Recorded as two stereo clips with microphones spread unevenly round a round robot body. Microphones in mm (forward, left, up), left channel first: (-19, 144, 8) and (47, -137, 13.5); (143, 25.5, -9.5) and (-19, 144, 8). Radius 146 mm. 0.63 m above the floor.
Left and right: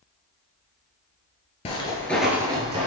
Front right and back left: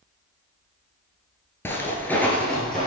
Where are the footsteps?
45° left, 0.7 m; by 2.9 s 130° right, 0.7 m.